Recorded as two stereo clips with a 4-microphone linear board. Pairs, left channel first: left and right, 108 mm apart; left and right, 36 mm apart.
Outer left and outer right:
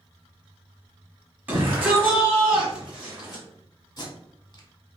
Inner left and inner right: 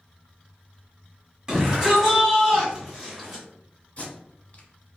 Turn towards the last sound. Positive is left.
turn(degrees=40)  # may be behind; listen again after turning